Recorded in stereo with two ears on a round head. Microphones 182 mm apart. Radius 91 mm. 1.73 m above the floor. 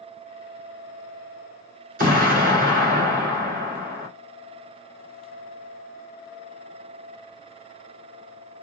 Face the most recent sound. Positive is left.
turn(degrees=-45)  # may be behind; listen again after turning